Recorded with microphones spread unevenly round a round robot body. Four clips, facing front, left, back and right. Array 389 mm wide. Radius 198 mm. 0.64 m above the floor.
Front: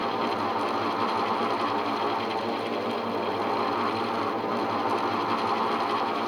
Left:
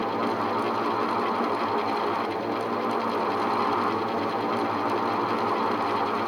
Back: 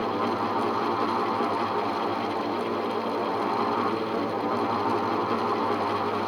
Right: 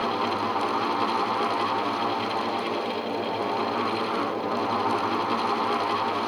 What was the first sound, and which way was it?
Only background noise.